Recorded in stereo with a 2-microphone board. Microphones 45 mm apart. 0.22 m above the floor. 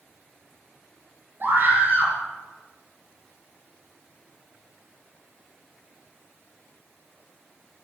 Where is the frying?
No frying in this recording.